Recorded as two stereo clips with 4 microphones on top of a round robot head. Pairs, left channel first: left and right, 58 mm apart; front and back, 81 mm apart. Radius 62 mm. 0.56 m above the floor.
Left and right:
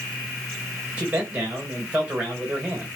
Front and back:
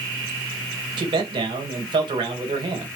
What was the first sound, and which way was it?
A man speaking, 160° right.